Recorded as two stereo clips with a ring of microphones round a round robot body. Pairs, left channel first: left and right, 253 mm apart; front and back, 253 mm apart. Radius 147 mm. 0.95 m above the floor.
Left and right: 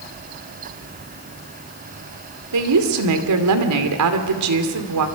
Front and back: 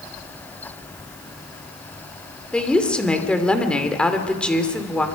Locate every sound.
2.5 s a woman speaking: 85° right, 2.5 m